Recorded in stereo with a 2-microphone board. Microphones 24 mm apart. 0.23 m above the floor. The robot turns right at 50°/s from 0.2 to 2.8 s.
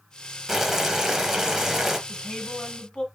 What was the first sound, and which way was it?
Boiling, 15° right (ahead or behind).